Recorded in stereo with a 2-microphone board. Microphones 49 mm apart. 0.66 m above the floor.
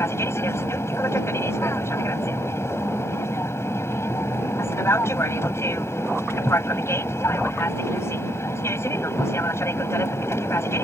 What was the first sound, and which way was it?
An aircraft, 65° left (ahead or behind).